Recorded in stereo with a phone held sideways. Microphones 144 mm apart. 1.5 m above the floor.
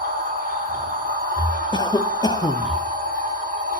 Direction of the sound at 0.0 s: 70° right (ahead or behind).